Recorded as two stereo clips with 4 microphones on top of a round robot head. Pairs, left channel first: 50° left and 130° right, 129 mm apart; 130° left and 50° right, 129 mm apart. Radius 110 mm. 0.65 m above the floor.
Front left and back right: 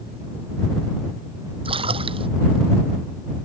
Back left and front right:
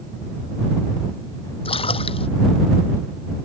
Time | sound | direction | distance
1.6 | a splash | straight behind | ?